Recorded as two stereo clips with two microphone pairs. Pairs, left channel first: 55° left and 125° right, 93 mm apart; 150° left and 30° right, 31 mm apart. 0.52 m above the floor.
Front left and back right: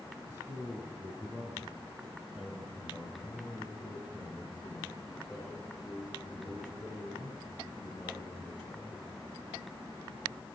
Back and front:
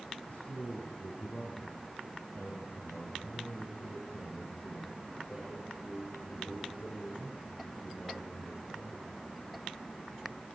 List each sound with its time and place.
0.3 s a man speaking: 175° left, 4.5 m; by 9.1 s 140° left, 11.5 m